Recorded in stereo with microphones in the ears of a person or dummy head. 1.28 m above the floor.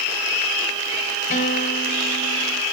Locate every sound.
1.3 s a guitar: 40° left (ahead or behind), 2.5 m